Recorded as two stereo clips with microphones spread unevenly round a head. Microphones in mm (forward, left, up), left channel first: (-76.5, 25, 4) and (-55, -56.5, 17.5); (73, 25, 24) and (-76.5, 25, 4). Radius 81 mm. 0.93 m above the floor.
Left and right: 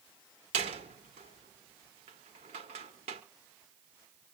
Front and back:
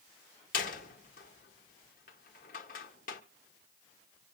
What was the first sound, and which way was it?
A door slam, 45° right.